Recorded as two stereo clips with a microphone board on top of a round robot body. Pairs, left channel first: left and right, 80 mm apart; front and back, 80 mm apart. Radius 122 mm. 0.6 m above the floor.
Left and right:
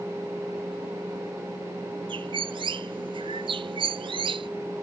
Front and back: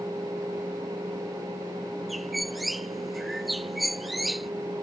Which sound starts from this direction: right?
A bird, at 2.1 s.